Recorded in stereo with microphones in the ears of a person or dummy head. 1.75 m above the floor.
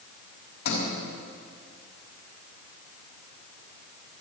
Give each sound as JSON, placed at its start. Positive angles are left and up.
{"t": 0.7, "sound": "a sliding door", "side_deg": 60, "distance_m": 4.5}